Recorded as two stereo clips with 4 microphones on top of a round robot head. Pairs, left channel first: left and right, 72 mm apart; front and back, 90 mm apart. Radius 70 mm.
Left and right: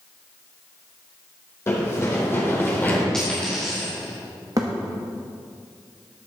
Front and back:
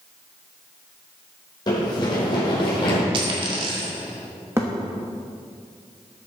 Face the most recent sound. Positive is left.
turn(degrees=-120)